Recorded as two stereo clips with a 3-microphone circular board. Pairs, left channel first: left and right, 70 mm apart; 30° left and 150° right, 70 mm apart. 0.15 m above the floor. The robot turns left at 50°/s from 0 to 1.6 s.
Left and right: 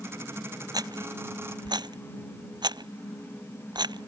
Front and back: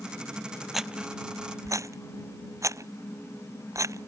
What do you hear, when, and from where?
0.7 s a rattle: 60° right; by 4.1 s 105° right